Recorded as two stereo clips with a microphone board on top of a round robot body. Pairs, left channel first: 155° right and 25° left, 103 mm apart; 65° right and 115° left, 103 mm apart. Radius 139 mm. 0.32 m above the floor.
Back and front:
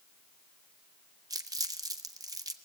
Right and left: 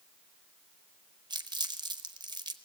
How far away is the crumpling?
About 1.1 m.